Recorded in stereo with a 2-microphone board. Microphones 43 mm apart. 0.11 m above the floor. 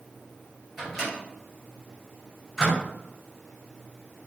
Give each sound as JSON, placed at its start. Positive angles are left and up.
{"t": 0.8, "sound": "a microwave", "side_deg": 0, "distance_m": 1.7}